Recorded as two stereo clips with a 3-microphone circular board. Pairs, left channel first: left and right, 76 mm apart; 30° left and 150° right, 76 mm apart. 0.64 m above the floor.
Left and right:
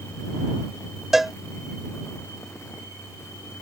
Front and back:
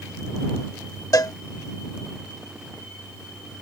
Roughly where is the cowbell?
Ahead.